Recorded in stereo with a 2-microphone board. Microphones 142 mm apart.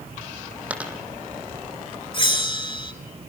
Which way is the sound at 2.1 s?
35° left (ahead or behind).